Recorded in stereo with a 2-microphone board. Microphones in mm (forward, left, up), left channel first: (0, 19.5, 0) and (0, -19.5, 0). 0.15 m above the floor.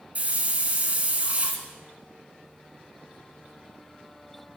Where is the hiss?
35° right (ahead or behind), 1.7 m.